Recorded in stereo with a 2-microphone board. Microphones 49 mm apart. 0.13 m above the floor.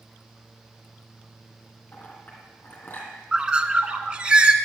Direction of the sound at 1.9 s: 40° left (ahead or behind).